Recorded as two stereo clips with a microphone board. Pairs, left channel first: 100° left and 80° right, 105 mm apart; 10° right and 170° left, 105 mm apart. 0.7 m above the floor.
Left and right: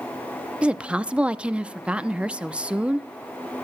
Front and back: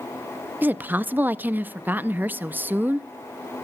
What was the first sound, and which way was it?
A woman speaking, 140° right.